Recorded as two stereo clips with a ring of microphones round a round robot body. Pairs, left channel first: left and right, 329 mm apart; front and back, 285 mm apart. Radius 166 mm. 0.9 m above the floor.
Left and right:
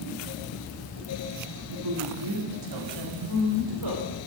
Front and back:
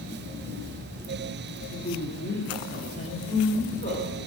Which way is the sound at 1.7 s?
65° right.